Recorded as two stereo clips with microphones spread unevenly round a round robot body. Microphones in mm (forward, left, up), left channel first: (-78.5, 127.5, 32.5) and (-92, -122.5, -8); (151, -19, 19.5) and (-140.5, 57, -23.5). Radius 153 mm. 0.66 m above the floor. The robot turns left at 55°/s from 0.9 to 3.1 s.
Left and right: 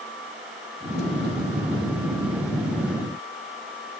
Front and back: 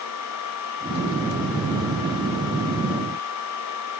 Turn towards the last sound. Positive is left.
No sound to turn to.